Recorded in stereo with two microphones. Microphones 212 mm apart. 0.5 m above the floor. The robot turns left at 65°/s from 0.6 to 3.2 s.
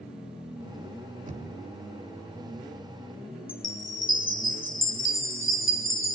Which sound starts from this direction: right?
Knocking, at 1.3 s.